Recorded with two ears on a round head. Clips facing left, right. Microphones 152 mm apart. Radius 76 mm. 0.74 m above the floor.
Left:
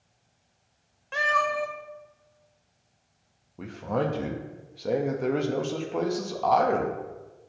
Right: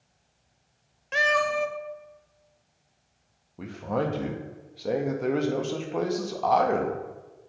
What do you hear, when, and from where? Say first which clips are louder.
1.1 s a cat meowing: right 2 dB; 25° right (ahead or behind), 0.5 m
3.6 s a man speaking: even; centre (ahead or behind), 0.5 m